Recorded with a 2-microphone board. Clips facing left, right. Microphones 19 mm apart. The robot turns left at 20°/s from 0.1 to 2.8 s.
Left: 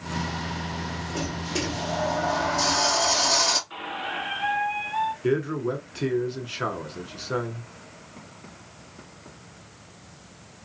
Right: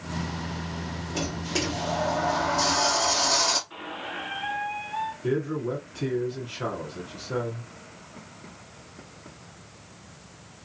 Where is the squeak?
25° left (ahead or behind), 0.7 m.